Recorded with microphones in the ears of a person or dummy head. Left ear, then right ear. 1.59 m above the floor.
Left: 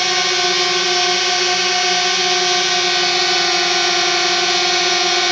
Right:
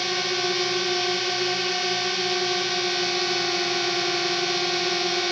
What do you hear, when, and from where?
0.0 s a drone: 45° left (ahead or behind)